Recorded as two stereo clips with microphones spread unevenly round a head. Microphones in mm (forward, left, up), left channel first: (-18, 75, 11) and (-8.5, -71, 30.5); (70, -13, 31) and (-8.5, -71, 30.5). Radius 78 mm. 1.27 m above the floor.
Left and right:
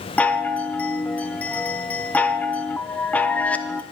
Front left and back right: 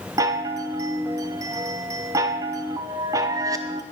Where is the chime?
165° left, 0.6 m.